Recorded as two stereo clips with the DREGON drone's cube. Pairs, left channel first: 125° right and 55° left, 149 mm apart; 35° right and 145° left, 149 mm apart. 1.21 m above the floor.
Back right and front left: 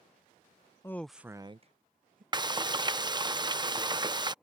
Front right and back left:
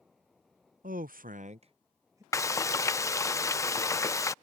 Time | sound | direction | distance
0.8 | a man speaking | 165° left | ?
2.3 | frying | 20° left | ?